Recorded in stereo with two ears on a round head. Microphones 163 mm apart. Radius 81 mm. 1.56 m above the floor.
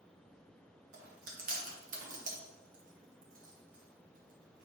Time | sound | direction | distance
0.9 | chewing | 50° right (ahead or behind) | 1.1 m